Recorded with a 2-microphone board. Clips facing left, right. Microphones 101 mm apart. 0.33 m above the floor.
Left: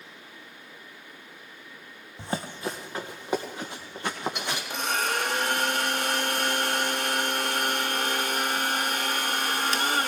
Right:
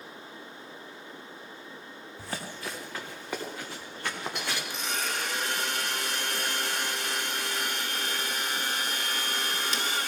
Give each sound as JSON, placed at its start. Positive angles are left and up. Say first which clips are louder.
{"t": 2.2, "sound": "running footsteps", "louder": "left 6 dB", "side_deg": 25, "distance_m": 1.1}
{"t": 4.7, "sound": "a blender", "louder": "left 5 dB", "side_deg": 60, "distance_m": 0.8}